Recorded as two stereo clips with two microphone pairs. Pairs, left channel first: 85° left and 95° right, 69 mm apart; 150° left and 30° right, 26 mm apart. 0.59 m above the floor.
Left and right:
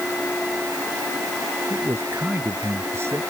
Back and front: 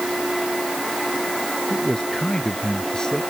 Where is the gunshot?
No gunshot in this recording.